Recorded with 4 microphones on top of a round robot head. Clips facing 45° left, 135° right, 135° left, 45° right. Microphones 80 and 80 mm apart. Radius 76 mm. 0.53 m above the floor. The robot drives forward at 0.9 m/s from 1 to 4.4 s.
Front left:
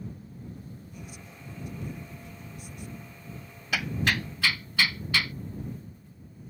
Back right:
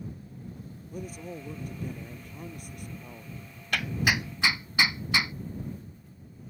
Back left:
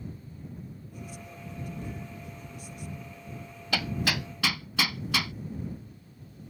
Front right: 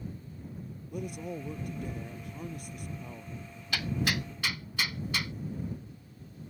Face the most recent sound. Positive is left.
turn(degrees=155)